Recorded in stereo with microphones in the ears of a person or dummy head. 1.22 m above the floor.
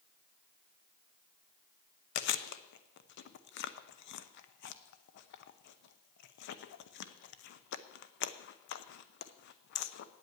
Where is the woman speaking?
I don't hear a woman speaking.